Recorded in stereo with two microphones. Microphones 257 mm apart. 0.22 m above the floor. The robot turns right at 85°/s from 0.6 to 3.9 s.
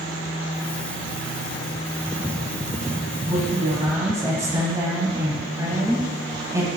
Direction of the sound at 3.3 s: 30° right (ahead or behind).